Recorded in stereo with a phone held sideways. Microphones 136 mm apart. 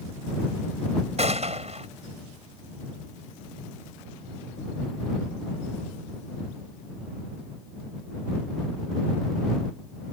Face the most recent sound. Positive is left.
turn(degrees=-55)  # may be behind; listen again after turning